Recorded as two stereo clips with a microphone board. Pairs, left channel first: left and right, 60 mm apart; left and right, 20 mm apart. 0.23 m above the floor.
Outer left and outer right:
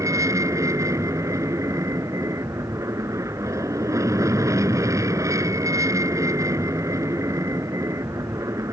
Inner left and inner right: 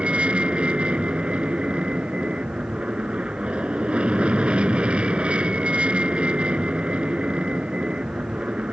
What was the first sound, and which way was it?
An aircraft, 60° right (ahead or behind).